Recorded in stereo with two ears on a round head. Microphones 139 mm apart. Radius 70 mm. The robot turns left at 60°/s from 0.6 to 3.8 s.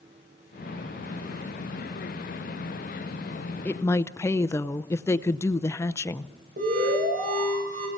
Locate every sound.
3.6 s a woman speaking: 10° left (ahead or behind), 0.6 m; by 6.3 s 15° left (ahead or behind), 0.6 m
6.6 s an alarm: 60° right (ahead or behind), 7.5 m